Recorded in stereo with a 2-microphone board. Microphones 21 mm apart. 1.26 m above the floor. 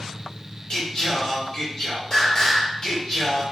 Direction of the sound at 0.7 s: 30° left (ahead or behind).